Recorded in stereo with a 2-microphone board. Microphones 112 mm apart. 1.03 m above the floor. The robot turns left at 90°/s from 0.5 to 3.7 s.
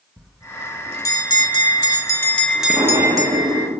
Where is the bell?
175° right, 0.9 m; by 3.7 s 105° right, 0.9 m.